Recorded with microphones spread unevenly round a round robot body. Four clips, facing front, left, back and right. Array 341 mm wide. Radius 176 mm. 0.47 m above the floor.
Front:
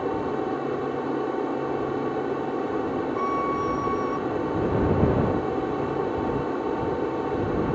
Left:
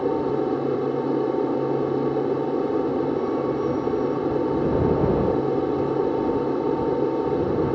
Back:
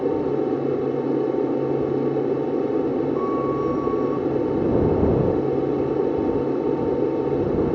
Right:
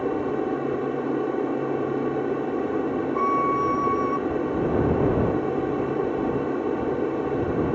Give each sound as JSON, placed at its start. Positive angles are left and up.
{"t": 0.0, "sound": "an aircraft", "azimuth_deg": 165}
{"t": 3.1, "sound": "a violin", "azimuth_deg": -85}